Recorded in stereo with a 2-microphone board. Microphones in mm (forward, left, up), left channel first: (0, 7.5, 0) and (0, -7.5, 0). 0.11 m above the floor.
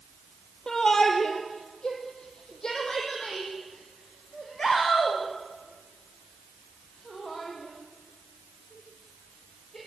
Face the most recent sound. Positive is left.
turn(degrees=45)  # may be behind; listen again after turning